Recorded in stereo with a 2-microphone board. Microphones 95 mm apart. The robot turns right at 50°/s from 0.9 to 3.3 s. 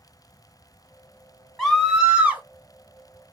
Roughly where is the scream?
Centre.